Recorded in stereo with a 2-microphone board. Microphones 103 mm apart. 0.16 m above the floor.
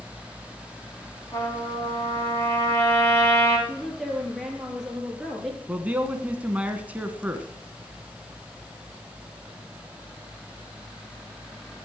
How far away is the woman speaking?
About 4 m.